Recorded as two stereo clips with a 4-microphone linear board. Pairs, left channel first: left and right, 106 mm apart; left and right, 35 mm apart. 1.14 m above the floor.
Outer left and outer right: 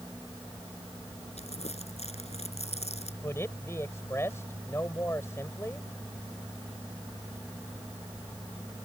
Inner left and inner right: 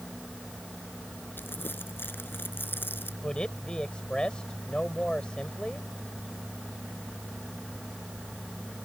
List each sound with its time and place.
1.4 s crumpling: 85° left
3.2 s a man speaking: 25° left (ahead or behind)